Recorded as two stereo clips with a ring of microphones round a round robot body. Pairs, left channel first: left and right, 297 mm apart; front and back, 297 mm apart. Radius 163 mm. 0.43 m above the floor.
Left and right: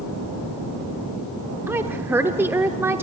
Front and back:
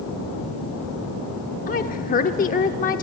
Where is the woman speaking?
15° right, 0.8 m.